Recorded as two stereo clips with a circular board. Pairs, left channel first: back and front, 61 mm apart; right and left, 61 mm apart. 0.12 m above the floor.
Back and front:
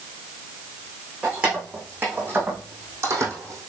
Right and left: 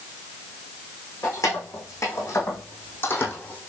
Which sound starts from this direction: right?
Keys jangling, at 1.2 s.